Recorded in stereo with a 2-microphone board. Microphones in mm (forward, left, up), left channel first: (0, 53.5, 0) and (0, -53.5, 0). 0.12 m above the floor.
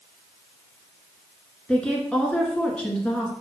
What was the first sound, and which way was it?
A woman speaking, 10° left (ahead or behind).